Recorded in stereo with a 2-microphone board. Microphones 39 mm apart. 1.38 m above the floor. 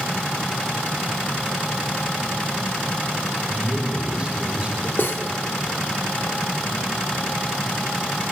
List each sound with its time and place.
3.4 s a man speaking: 25° right (ahead or behind), 6.5 m
5.0 s cutlery clinking: 65° left (ahead or behind), 1.6 m